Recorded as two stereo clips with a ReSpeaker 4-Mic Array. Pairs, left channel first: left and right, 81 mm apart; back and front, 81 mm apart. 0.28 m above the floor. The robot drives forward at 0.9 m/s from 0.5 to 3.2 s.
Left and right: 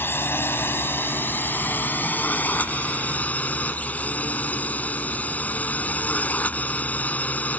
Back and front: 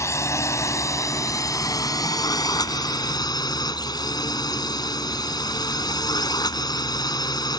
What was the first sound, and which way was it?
A drone, 145° left.